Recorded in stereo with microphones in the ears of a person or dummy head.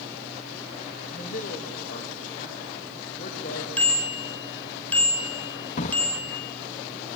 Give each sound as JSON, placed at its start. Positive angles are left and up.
{"t": 1.1, "sound": "a man speaking", "side_deg": 50, "distance_m": 2.0}
{"t": 3.8, "sound": "a bicycle bell", "side_deg": 10, "distance_m": 3.5}
{"t": 5.8, "sound": "a drawer", "side_deg": 40, "distance_m": 0.8}